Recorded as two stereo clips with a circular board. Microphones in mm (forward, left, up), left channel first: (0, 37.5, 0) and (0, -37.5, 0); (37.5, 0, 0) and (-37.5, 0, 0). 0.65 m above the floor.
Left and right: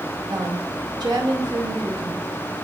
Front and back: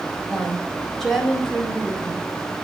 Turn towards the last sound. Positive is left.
turn(degrees=-85)